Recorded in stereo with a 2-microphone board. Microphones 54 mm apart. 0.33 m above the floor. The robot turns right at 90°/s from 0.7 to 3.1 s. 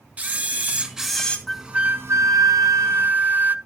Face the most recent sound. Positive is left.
turn(degrees=-35)